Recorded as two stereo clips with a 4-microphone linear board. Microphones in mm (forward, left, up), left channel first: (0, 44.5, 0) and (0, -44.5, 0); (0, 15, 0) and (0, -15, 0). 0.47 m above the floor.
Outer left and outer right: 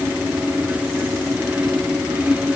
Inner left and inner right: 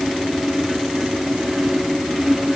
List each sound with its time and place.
Only background noise.